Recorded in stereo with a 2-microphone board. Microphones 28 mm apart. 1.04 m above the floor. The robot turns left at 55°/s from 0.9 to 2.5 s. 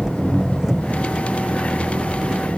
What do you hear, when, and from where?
0.0 s an engine running: 20° right; by 2.6 s 105° right